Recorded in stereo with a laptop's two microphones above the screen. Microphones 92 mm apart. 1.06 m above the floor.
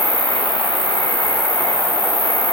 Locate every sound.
0.0 s an insect: 85° right, 5 m